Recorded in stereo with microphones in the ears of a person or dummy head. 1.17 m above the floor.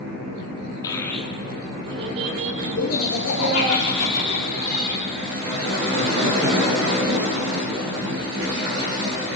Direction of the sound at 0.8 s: 20° left (ahead or behind).